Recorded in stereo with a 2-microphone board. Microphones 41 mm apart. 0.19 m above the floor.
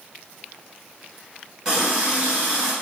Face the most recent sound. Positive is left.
turn(degrees=-20)  # may be behind; listen again after turning